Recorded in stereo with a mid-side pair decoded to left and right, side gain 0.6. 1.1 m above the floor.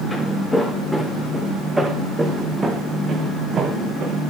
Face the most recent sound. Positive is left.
turn(degrees=-55)